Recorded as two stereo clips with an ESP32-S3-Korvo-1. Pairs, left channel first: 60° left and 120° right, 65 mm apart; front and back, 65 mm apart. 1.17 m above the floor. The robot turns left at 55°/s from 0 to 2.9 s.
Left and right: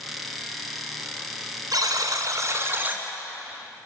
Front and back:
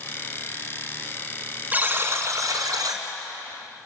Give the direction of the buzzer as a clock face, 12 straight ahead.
4 o'clock.